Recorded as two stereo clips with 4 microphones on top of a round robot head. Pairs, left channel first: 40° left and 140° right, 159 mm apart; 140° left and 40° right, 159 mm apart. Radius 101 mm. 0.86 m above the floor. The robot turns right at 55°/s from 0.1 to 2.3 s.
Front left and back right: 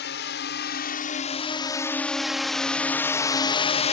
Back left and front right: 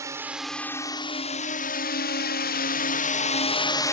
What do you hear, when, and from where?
0.0 s a drone: 30° left; by 3.9 s 70° left